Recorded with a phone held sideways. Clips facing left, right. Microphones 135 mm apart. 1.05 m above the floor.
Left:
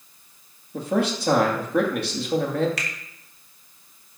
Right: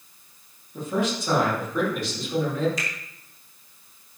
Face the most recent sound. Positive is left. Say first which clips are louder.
# right 1 dB
turn(degrees=70)  # may be behind; listen again after turning